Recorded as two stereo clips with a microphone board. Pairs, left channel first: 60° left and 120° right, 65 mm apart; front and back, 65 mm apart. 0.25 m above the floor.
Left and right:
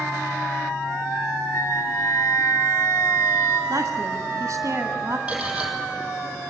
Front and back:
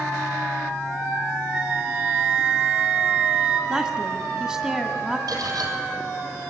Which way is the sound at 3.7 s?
95° right.